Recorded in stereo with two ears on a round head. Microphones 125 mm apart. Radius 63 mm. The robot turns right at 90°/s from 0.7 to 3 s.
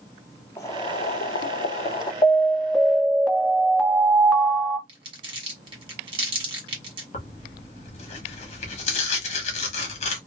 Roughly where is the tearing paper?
Left.